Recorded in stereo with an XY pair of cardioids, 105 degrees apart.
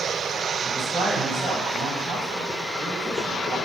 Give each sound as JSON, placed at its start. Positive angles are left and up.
{"t": 0.6, "sound": "a man speaking", "azimuth_deg": -60, "distance_m": 1.8}